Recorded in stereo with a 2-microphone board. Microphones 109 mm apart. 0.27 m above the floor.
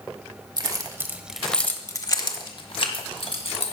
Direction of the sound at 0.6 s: 40° right (ahead or behind).